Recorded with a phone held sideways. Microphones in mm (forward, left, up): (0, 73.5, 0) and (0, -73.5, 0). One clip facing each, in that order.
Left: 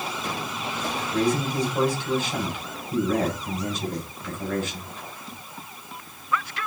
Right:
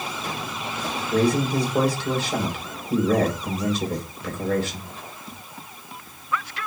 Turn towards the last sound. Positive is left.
turn(degrees=-75)  # may be behind; listen again after turning